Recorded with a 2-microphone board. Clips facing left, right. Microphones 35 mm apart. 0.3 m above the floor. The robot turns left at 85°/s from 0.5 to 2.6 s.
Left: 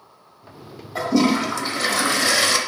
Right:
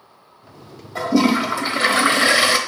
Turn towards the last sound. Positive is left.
turn(degrees=-135)